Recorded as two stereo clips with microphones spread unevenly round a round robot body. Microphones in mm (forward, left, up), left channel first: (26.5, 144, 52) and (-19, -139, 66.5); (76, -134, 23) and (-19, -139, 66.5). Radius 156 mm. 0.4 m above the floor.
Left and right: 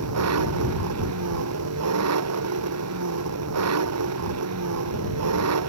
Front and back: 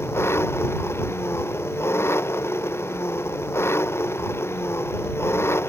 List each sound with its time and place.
0.0 s an engine running: 60° right